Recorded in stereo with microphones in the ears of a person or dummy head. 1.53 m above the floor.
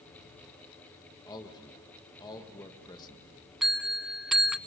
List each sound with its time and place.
1.3 s a man speaking: 20° left (ahead or behind), 1.9 m
3.6 s a bell: 5° right (ahead or behind), 0.6 m